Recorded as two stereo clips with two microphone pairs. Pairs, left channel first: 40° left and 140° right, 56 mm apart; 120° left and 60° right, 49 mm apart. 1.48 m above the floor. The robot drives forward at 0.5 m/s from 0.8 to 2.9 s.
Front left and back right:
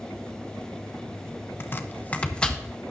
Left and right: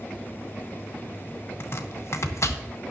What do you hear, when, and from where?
1.6 s chopping: 85° left, 0.8 m; by 2.6 s 115° left, 0.9 m